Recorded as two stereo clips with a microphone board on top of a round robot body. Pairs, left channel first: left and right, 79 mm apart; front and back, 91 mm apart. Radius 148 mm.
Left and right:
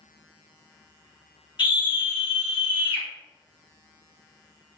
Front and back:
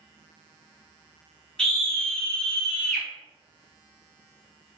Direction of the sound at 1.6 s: 80° left.